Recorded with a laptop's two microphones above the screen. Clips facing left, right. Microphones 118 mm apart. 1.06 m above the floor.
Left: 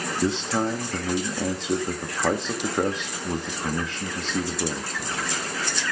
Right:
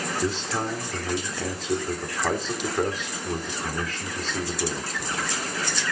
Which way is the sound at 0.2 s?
25° left (ahead or behind).